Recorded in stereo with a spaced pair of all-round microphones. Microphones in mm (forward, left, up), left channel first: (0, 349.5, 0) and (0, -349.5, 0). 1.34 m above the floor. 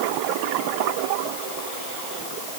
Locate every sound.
Only background noise.